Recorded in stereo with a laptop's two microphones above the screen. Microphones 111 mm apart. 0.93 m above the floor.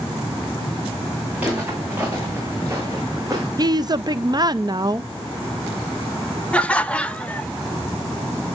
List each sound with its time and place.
1.4 s footsteps: 15° right (ahead or behind), 5 m; by 3.5 s 35° right (ahead or behind), 3.5 m
3.6 s a woman speaking: 40° right (ahead or behind), 0.5 m
6.5 s laughter: 10° left (ahead or behind), 0.7 m